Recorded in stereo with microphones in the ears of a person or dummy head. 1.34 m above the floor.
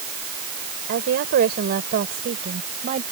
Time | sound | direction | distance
0.9 | a woman speaking | 55° right (ahead or behind) | ?